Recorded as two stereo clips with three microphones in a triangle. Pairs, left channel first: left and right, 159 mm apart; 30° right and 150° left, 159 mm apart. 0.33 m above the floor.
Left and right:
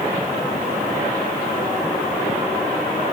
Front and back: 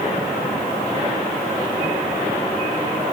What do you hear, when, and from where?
Only background noise.